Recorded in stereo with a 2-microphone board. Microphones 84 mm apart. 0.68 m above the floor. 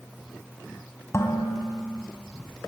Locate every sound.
1.1 s dishes clattering: 35° left (ahead or behind), 3 m